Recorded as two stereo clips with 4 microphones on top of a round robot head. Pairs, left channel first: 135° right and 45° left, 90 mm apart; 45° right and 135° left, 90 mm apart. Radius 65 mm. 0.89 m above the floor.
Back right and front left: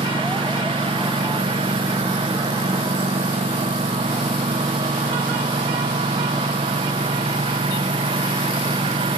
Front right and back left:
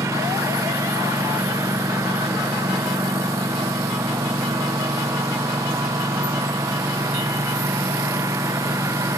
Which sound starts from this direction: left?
A lawn mower, at 0.0 s.